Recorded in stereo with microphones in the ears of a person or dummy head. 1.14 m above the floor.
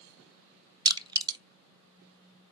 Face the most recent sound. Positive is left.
turn(degrees=-20)  # may be behind; listen again after turning